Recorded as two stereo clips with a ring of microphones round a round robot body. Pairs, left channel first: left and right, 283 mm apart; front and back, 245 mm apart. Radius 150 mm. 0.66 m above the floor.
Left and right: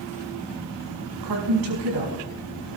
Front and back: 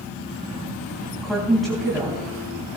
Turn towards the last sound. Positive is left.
turn(degrees=-90)